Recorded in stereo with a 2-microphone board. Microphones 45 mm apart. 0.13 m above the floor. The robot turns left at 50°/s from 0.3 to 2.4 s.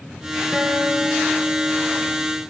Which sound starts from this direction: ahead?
A guitar, at 0.5 s.